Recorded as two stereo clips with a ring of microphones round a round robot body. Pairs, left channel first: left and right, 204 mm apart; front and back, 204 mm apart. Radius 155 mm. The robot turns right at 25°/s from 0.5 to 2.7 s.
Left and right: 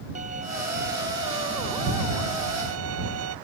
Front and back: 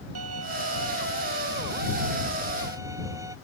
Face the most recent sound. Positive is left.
turn(degrees=-100)